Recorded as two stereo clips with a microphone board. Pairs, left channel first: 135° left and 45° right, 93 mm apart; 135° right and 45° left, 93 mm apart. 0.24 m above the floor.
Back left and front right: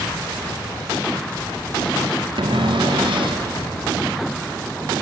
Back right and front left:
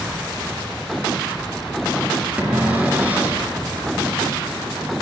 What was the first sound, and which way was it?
A cupboard door, 25° right.